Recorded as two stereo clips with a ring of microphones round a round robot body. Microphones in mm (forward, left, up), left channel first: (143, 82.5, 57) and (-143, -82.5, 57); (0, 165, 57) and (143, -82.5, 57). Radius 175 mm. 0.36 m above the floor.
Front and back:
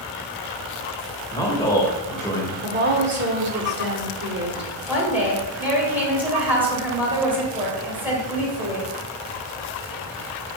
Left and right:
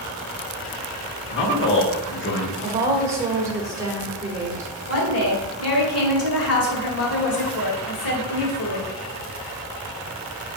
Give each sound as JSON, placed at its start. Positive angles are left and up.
{"t": 1.3, "sound": "a man speaking", "azimuth_deg": 105, "distance_m": 1.3}
{"t": 2.6, "sound": "a woman speaking", "azimuth_deg": -130, "distance_m": 1.0}
{"t": 4.9, "sound": "a woman speaking", "azimuth_deg": 125, "distance_m": 1.5}